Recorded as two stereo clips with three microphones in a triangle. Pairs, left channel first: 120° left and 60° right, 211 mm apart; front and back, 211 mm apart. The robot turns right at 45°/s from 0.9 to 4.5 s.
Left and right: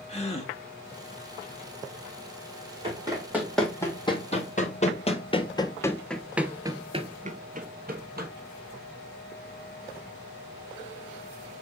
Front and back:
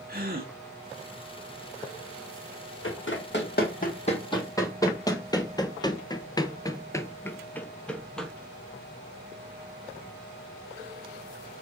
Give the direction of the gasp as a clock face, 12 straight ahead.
6 o'clock.